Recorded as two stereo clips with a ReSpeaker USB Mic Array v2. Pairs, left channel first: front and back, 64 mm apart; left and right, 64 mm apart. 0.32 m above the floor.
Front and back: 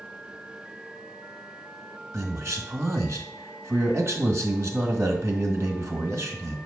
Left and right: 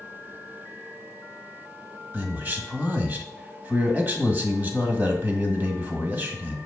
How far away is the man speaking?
About 1.7 m.